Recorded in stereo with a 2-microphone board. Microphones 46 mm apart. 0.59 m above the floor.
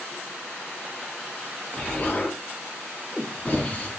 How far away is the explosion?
About 3.5 m.